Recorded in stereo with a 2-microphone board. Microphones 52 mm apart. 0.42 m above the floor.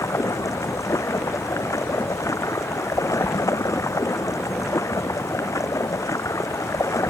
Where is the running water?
85° left.